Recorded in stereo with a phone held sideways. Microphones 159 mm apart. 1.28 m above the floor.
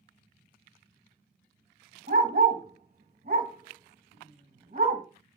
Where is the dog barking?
60° right (ahead or behind), 1.9 m.